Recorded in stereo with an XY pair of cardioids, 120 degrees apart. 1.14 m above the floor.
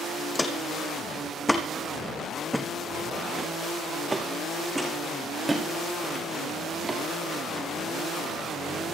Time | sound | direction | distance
0.3 | footsteps | 20° left | 3.5 m